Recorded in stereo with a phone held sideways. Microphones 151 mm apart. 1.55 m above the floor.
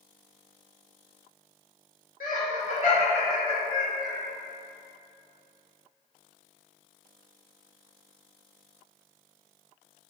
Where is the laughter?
65° left (ahead or behind), 2.0 m; by 4.2 s 25° left (ahead or behind), 1.9 m.